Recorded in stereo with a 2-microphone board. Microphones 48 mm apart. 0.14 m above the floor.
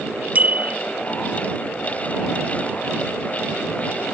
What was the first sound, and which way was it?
A bicycle bell, 35° right (ahead or behind).